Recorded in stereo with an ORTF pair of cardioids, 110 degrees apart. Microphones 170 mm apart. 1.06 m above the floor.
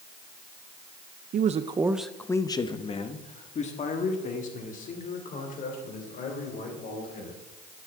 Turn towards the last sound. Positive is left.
turn(degrees=55)